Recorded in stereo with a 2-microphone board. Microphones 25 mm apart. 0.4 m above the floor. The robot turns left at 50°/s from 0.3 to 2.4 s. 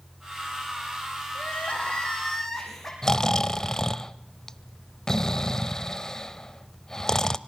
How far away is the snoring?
About 0.7 m.